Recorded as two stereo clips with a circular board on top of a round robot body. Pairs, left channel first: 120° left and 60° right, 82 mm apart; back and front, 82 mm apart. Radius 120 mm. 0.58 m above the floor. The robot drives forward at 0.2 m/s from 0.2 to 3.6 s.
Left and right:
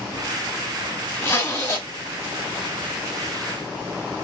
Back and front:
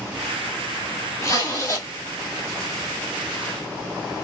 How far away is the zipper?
About 1.5 m.